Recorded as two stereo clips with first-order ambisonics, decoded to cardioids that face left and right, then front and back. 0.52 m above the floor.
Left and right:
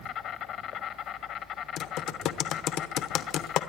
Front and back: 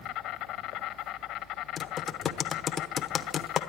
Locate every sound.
0.0 s an insect: 40° left, 0.9 m
1.8 s typing on a keyboard: 65° left, 0.9 m